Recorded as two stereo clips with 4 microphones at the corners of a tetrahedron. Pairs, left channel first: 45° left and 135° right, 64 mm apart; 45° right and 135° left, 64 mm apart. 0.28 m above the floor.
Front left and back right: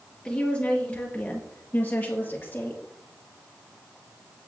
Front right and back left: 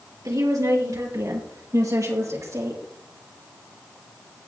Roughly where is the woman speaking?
Behind left.